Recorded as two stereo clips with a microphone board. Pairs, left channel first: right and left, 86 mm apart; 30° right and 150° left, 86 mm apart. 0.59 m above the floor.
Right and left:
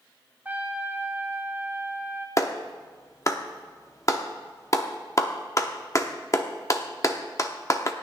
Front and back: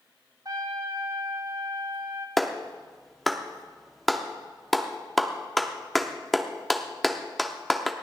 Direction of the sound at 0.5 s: 150° left.